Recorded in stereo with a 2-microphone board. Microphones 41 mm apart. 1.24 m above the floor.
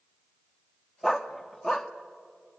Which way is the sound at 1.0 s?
10° left (ahead or behind).